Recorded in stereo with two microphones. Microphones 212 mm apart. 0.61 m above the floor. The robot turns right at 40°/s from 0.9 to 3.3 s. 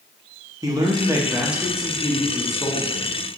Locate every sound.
0.6 s a man speaking: 15° right (ahead or behind), 0.6 m; by 3.2 s 20° left (ahead or behind), 0.6 m